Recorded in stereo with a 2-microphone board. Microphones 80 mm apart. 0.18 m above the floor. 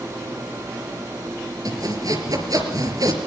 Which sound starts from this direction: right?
Sawing, at 1.6 s.